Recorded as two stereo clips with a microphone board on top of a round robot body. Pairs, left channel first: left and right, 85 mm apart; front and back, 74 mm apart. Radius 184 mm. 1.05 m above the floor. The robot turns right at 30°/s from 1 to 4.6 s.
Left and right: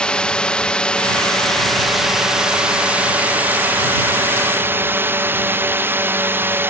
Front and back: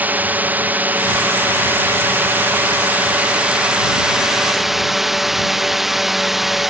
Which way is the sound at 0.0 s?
155° left.